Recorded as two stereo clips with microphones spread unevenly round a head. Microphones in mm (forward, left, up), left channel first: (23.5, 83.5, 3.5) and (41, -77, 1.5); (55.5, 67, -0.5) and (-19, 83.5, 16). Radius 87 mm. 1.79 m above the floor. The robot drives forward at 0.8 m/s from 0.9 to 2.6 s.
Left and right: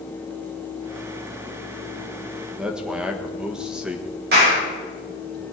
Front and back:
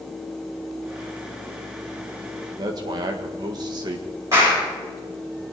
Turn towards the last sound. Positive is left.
turn(degrees=-120)